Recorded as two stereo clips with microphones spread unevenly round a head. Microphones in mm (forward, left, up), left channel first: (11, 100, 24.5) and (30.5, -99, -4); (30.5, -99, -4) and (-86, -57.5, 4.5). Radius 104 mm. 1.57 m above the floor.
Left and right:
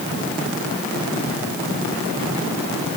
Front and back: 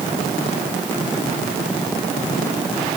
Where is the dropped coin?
I don't hear a dropped coin.